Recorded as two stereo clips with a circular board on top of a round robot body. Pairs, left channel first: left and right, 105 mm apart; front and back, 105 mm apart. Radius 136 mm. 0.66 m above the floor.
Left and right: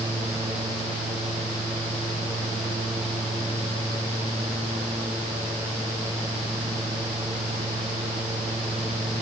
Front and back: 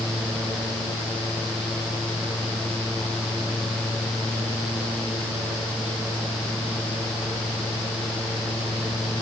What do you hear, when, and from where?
Only background noise.